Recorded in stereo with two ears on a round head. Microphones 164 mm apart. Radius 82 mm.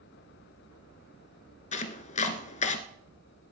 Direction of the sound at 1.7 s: 40° left (ahead or behind).